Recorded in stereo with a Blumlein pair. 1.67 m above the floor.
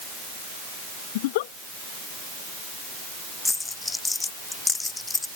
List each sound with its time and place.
1.1 s a giggle: 50° left
3.5 s a dropped coin: 10° left